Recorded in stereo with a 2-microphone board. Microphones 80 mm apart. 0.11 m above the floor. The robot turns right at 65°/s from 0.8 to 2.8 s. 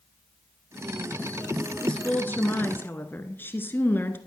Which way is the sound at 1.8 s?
10° left (ahead or behind).